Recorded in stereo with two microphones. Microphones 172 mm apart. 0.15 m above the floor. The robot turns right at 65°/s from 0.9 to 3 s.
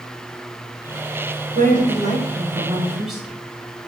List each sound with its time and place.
1.6 s a woman speaking: 100° right, 1.4 m; by 3.4 s 5° right, 1.4 m